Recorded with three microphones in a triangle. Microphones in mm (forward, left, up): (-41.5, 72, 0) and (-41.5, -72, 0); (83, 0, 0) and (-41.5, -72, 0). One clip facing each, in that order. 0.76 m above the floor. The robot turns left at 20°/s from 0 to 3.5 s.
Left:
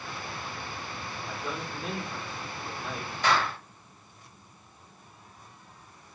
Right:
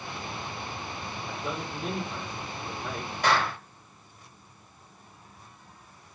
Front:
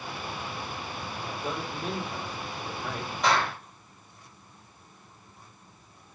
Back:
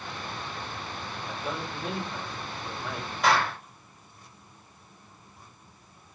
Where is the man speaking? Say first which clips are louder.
Right 2 dB, even; 20° right, 2.5 m; by 3.1 s 55° right, 2.5 m.